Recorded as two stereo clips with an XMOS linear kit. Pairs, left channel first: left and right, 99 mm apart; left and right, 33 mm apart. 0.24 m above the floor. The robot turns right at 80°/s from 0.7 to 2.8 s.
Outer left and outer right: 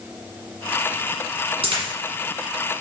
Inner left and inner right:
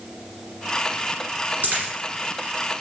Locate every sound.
1.6 s a dropped coin: 70° right (ahead or behind), 1.9 m; by 1.9 s 50° right (ahead or behind), 1.9 m